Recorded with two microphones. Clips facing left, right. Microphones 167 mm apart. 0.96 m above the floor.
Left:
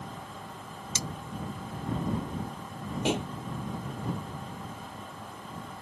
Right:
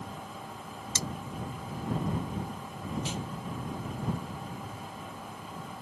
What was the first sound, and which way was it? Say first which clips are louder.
Cutlery clinking: even; 15° left (ahead or behind).